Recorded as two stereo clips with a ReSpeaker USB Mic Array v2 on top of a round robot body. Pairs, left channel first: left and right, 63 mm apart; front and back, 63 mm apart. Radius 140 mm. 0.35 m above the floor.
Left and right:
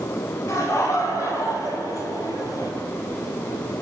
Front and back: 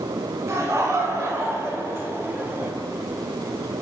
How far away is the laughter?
About 5 m.